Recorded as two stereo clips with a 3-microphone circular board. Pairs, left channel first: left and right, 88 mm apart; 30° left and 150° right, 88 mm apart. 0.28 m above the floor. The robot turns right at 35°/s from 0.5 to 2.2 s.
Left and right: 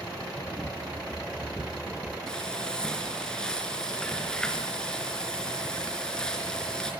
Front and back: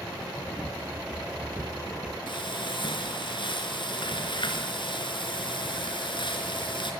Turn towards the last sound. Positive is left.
turn(degrees=10)